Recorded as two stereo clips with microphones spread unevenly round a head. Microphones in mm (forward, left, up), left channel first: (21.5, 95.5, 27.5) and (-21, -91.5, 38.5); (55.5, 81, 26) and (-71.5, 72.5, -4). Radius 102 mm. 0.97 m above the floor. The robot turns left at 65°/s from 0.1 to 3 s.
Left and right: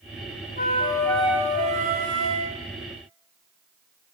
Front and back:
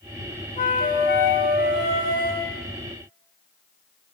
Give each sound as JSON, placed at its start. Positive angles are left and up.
{"t": 0.6, "sound": "a flute", "azimuth_deg": 30, "distance_m": 3.0}